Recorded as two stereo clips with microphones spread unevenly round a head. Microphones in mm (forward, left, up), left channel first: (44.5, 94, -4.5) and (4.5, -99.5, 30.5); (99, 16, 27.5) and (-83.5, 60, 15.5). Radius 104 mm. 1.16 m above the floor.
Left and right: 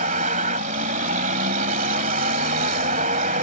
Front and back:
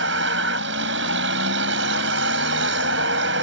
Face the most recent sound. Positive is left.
turn(degrees=-155)